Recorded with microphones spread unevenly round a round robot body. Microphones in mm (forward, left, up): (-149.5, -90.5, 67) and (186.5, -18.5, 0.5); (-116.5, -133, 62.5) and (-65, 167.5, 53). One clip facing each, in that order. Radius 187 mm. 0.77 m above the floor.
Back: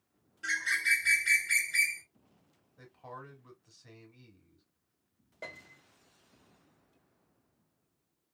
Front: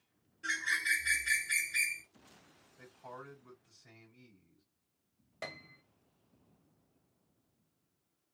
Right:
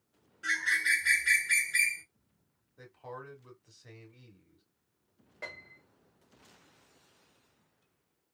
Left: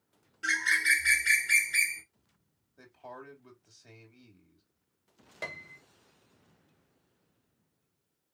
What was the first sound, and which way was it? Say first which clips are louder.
A bird: even, left 4 dB; 130° left.